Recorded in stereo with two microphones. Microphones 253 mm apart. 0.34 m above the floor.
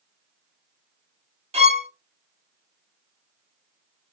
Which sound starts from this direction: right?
A violin, at 1.5 s.